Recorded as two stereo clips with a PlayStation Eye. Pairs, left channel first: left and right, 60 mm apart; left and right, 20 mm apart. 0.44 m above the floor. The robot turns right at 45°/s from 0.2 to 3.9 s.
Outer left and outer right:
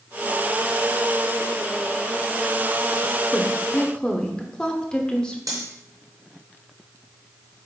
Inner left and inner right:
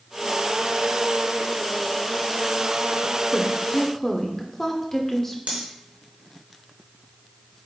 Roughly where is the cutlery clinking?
Right.